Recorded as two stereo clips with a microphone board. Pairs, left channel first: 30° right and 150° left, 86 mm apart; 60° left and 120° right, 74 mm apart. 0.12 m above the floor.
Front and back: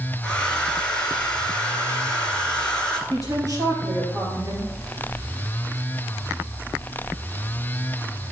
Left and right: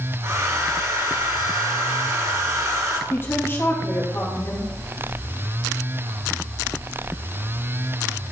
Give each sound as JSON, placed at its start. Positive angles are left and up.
{"t": 0.2, "sound": "a hair dryer", "azimuth_deg": -105, "distance_m": 1.4}
{"t": 3.1, "sound": "a woman speaking", "azimuth_deg": 115, "distance_m": 2.5}